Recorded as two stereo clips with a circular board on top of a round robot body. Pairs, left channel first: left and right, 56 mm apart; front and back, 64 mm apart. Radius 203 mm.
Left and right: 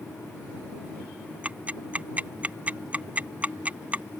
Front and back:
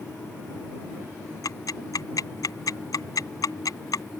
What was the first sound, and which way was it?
Ticking, 25° right.